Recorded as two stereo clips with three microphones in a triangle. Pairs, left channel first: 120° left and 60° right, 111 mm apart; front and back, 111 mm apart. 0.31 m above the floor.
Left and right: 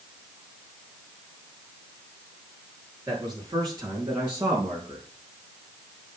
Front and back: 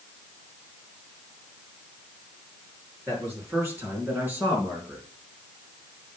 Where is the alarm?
I don't hear an alarm.